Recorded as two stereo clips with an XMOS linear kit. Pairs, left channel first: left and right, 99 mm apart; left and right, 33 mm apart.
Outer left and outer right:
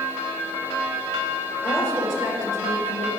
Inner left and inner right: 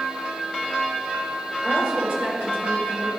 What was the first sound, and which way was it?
A woman speaking, 25° right (ahead or behind).